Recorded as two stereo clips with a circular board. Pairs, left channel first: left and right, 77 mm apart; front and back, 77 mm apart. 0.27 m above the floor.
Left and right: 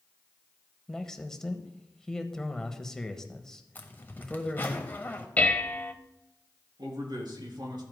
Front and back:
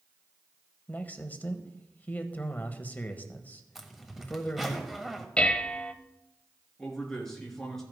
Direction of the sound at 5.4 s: 55° left.